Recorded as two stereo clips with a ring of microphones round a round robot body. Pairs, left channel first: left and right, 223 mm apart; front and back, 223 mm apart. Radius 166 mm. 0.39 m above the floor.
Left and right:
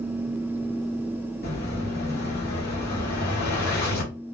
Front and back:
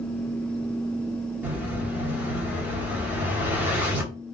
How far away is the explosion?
About 1.6 m.